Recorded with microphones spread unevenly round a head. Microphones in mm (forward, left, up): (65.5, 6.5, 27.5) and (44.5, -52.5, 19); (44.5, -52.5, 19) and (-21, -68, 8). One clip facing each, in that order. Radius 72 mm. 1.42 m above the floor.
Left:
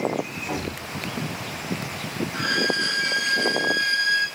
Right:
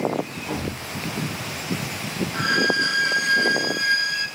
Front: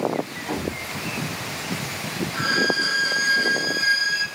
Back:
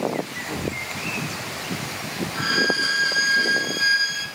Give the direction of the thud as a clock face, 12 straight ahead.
12 o'clock.